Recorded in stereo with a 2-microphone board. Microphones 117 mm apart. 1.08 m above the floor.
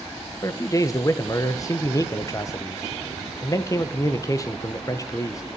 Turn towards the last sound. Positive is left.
turn(degrees=30)  # may be behind; listen again after turning